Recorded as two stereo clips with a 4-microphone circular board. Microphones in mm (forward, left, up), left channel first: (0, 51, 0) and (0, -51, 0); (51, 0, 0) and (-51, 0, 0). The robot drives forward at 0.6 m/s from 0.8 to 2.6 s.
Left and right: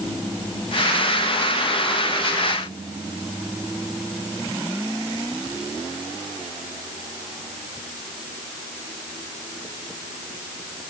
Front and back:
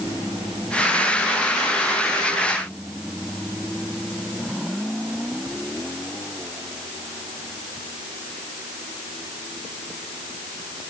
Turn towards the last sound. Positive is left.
No sound to turn to.